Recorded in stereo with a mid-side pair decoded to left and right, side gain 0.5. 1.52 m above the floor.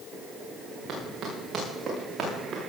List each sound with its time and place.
0.9 s running footsteps: 65° right, 8 m; by 2.6 s 55° right, 7.5 m